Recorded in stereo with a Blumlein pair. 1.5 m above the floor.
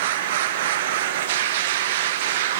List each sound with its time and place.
0.0 s a machine running: 55° right, 1.0 m